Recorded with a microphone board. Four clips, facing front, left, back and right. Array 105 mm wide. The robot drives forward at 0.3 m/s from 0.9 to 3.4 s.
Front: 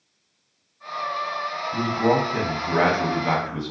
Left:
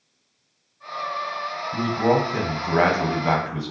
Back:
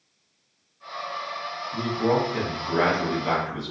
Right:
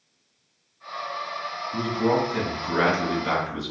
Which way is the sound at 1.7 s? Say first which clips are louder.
Left 3 dB, front 2 dB; 60° left.